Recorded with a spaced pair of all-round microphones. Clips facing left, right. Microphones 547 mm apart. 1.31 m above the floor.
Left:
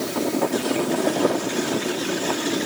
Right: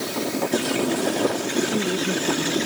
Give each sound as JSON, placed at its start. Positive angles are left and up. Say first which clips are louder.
{"t": 1.6, "sound": "a man speaking", "louder": "right 1 dB", "side_deg": -75}